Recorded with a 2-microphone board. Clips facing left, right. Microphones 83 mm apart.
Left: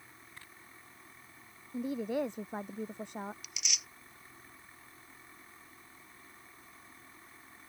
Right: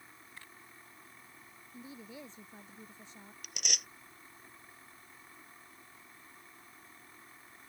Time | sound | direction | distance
1.7 | a woman speaking | 65° left (ahead or behind) | ?
3.4 | tearing paper | 55° right (ahead or behind) | ?